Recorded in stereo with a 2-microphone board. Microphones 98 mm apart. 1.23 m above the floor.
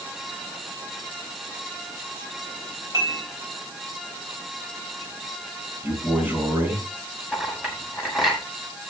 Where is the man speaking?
20° right (ahead or behind), 7 m.